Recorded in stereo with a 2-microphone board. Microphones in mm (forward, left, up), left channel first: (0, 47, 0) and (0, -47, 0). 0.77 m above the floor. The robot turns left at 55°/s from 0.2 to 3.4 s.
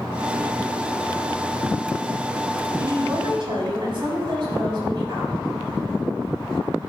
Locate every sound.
2.8 s a woman speaking: 30° right, 4.5 m; by 5.4 s 65° right, 4.5 m